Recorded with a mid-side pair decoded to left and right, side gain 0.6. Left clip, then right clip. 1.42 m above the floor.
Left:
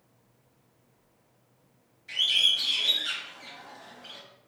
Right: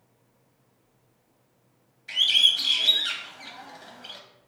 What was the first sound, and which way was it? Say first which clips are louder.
A bird: right 4 dB; 35° right.